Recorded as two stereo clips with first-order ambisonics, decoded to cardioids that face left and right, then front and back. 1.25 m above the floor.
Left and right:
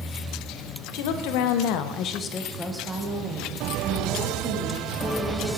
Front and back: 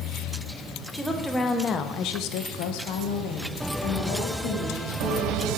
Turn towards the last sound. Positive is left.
turn(degrees=-45)